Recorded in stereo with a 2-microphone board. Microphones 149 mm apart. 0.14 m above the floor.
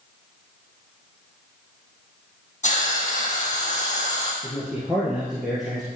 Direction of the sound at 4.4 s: Centre (ahead or behind).